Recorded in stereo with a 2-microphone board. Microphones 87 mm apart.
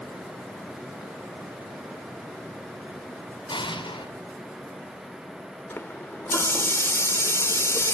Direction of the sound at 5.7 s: 30° left (ahead or behind).